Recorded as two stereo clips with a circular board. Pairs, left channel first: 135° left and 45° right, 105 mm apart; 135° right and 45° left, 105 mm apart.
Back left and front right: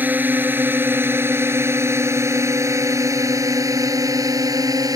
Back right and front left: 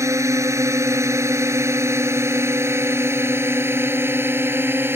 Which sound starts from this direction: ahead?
A drone, at 0.0 s.